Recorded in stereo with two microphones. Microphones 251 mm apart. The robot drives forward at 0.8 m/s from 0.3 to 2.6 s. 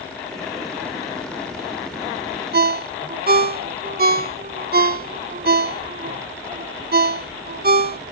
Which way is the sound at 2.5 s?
40° right (ahead or behind).